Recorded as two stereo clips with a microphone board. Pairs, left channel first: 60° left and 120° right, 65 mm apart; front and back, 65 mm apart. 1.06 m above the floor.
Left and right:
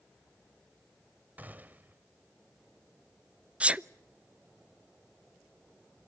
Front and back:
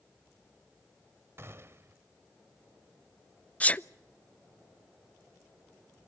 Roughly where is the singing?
No singing in this recording.